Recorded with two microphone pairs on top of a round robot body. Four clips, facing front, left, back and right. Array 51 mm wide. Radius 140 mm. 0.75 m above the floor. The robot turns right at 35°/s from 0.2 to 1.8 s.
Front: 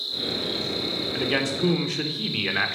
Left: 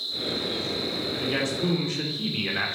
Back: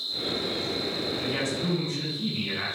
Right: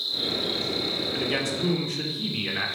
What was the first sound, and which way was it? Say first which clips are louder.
An insect: right 1 dB, front 1 dB; 60° right.